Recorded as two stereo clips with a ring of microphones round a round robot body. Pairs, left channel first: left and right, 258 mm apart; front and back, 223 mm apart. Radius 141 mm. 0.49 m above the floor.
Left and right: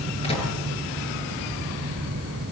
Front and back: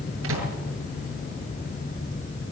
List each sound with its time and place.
0.2 s a microwave: 160° left, 8 m